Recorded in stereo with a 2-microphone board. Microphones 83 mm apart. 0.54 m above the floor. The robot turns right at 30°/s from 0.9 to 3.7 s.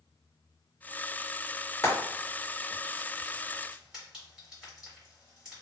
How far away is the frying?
About 1.8 m.